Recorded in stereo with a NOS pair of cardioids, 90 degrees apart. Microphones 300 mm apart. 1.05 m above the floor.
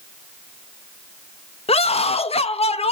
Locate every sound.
1.7 s a scream: 20° left, 1.0 m